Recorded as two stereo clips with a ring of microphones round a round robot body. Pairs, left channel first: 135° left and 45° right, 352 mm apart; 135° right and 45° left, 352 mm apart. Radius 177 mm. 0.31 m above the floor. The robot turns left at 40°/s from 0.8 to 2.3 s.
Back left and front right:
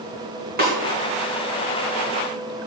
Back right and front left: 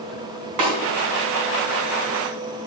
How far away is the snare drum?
About 4 m.